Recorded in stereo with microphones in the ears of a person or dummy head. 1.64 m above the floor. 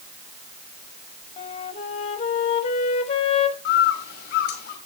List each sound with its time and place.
1.4 s a flute: 35° left (ahead or behind), 1.4 m
3.6 s a bird: 50° left (ahead or behind), 1.9 m